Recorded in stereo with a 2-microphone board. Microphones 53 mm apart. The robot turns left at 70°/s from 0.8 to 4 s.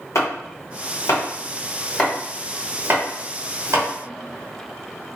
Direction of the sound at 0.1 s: 65° left (ahead or behind).